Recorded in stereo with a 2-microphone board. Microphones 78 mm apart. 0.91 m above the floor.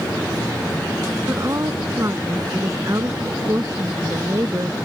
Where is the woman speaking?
45° right (ahead or behind).